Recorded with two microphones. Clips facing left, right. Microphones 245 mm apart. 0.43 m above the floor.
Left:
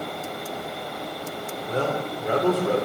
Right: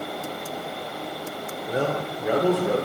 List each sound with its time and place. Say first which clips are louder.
1.7 s a man speaking: right 1 dB; 10° right (ahead or behind), 0.8 m